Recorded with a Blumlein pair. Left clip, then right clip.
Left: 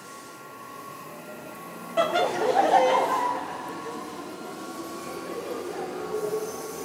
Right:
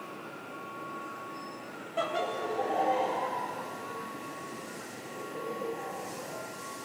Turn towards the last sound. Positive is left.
turn(degrees=60)